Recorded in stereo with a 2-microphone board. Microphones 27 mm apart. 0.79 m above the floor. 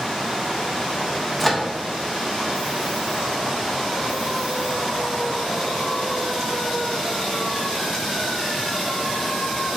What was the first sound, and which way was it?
A microwave, 5° left (ahead or behind).